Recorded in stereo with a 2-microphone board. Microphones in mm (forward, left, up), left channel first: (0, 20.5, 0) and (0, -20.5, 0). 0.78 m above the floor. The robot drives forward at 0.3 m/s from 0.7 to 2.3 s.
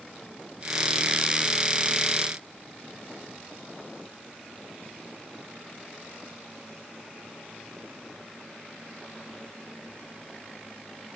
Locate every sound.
Only background noise.